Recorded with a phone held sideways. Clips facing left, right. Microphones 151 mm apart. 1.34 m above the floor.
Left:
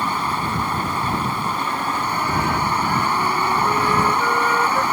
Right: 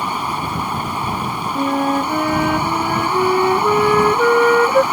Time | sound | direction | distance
0.0 | running water | 15° right (ahead or behind) | ?
1.6 | a flute | 70° right (ahead or behind) | ?